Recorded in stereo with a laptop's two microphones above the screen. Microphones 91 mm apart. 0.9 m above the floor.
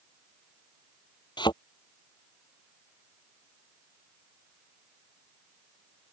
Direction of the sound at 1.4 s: 55° left (ahead or behind).